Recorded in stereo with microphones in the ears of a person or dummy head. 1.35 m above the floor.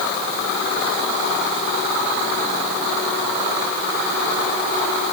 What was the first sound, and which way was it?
Only background noise.